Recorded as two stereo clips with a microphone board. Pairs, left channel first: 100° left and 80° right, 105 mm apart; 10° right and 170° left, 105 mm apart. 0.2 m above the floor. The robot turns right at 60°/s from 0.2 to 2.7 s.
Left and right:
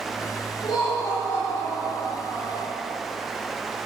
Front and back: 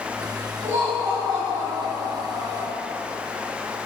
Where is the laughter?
115° left, 3 m; by 2.7 s 125° right, 3 m.